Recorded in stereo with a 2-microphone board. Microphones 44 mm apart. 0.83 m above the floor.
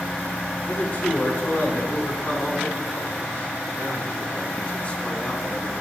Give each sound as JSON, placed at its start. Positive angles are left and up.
{"t": 0.7, "sound": "a man speaking", "side_deg": 40, "distance_m": 8.5}